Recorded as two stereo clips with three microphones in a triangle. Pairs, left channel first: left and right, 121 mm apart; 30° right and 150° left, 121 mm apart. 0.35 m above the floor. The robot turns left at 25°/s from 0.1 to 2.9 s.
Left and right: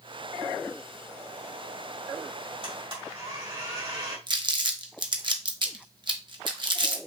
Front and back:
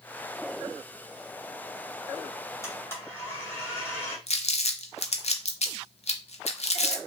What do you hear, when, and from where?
2.6 s a blender: 85° right, 2 m; by 4.2 s 90° right, 2 m
4.3 s crumpling: 45° right, 0.8 m